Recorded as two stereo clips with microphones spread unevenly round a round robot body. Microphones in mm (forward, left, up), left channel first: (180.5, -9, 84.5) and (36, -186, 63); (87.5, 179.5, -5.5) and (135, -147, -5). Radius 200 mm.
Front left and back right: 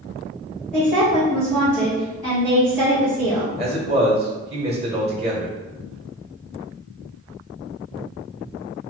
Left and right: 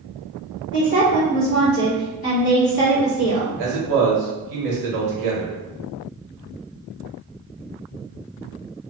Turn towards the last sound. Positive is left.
turn(degrees=-70)